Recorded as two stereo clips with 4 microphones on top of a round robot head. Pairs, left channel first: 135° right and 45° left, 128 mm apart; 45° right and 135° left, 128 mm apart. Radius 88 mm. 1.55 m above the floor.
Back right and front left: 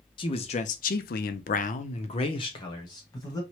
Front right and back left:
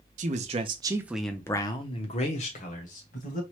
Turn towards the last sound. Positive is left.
turn(degrees=-70)